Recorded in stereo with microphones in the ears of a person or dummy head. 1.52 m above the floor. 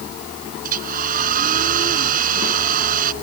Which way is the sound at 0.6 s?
50° right (ahead or behind).